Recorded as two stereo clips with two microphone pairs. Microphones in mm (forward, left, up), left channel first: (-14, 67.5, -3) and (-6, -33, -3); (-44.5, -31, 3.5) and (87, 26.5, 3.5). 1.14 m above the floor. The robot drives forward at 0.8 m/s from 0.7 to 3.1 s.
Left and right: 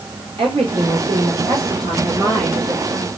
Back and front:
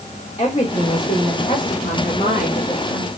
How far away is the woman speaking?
About 3.5 m.